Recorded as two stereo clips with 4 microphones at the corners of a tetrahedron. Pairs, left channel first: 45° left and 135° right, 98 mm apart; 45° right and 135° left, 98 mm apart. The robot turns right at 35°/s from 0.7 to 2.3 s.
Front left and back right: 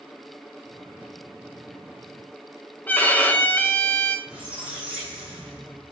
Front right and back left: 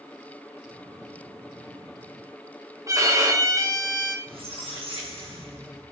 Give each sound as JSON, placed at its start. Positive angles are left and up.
{"t": 2.9, "sound": "a violin", "azimuth_deg": 105, "distance_m": 0.9}
{"t": 4.3, "sound": "a squeak", "azimuth_deg": 150, "distance_m": 3.0}